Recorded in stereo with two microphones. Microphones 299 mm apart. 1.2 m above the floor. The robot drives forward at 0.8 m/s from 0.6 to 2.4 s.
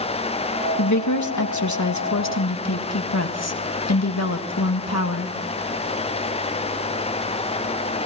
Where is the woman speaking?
65° left (ahead or behind), 1.6 m; by 5.3 s 55° left (ahead or behind), 1.7 m.